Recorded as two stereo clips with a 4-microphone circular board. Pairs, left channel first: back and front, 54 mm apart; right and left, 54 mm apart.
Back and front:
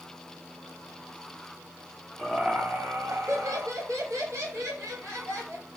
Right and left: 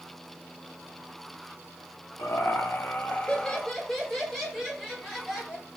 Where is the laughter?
85° right, 0.5 m; by 5.7 s 10° left, 2 m.